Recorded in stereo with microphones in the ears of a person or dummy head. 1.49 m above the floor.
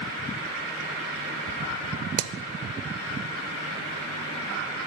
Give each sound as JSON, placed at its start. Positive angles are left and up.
{"t": 2.2, "sound": "hammering", "side_deg": -75, "distance_m": 0.7}